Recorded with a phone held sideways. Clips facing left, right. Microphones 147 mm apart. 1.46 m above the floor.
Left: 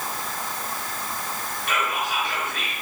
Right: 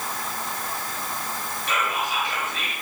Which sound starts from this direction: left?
Whispering, at 1.7 s.